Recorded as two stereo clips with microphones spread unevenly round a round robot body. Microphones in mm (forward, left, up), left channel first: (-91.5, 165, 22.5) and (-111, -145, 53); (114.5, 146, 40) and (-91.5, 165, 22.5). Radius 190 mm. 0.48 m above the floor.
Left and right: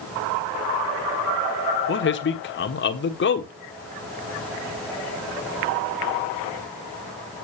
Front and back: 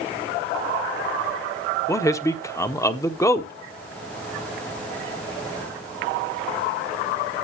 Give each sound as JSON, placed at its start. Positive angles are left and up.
{"t": 1.9, "sound": "a man speaking", "azimuth_deg": 70, "distance_m": 1.2}